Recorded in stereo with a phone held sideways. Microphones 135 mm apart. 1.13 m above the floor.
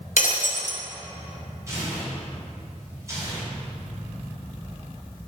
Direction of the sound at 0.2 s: 75° left (ahead or behind).